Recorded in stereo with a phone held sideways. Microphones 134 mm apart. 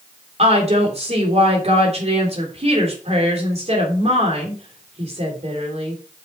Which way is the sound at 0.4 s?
50° right (ahead or behind).